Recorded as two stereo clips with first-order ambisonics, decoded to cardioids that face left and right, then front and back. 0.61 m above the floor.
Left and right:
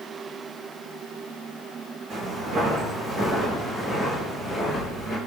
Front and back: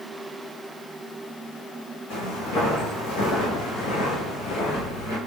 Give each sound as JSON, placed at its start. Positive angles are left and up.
{"t": 2.1, "sound": "footsteps", "azimuth_deg": -35, "distance_m": 1.5}